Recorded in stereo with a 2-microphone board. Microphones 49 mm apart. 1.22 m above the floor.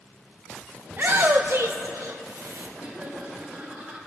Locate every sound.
0.9 s a shout: 40° right (ahead or behind), 0.6 m; by 2.7 s 80° right, 1.3 m
2.8 s laughter: 15° right (ahead or behind), 6 m